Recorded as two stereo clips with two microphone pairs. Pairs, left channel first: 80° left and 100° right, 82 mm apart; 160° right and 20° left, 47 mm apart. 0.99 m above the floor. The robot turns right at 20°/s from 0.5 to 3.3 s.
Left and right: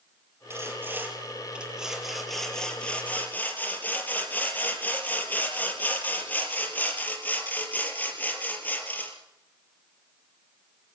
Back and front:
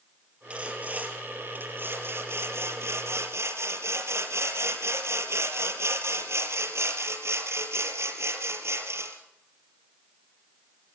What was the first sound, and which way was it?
Sawing, 45° right.